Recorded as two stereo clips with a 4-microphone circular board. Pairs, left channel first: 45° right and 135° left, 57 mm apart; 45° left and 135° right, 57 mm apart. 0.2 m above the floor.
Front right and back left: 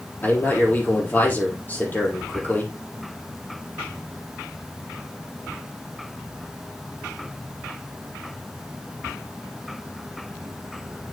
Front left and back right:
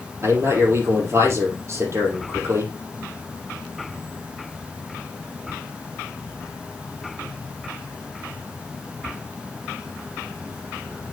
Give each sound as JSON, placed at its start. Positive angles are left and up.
{"t": 0.2, "sound": "a man speaking", "azimuth_deg": -100, "distance_m": 5.0}